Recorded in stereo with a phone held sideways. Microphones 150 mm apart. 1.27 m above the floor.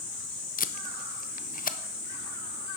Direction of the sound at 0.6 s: 65° left (ahead or behind).